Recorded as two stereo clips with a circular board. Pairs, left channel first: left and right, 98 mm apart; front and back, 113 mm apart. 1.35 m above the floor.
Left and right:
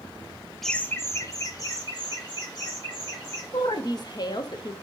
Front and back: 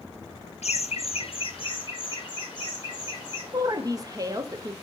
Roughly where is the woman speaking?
Behind left.